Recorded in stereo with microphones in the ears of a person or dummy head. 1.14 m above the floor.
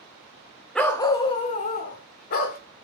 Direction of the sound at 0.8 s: 5° right (ahead or behind).